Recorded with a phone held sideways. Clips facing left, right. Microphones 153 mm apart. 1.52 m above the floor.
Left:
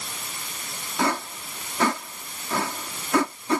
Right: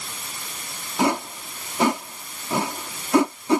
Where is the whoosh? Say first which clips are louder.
Right 4 dB; 20° right (ahead or behind).